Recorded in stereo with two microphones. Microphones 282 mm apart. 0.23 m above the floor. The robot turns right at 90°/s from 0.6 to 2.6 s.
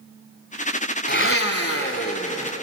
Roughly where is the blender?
Ahead left.